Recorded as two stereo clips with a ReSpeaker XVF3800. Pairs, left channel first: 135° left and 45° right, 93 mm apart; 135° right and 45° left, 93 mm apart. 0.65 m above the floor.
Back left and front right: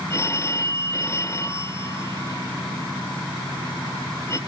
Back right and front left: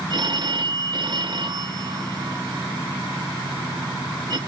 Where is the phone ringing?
80° left, 1.3 m.